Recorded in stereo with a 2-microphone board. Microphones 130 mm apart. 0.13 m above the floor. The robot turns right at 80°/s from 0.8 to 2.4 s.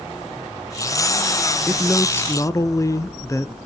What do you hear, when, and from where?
1.7 s a man speaking: centre (ahead or behind), 1.3 m; by 3.6 s 25° left (ahead or behind), 1.3 m